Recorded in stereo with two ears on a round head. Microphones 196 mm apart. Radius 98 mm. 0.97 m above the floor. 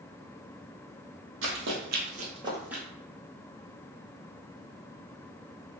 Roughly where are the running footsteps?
Right.